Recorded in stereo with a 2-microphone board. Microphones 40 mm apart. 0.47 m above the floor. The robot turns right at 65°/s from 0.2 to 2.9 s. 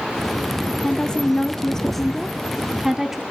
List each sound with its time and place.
0.8 s a woman speaking: 20° left (ahead or behind), 0.7 m; by 3.2 s 10° right (ahead or behind), 0.7 m